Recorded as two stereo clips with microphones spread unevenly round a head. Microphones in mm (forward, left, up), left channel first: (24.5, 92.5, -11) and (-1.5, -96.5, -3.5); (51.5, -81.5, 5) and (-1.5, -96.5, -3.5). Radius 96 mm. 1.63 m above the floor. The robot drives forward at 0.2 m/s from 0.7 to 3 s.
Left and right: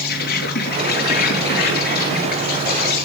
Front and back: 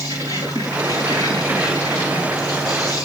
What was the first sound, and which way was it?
An insect, 125° left.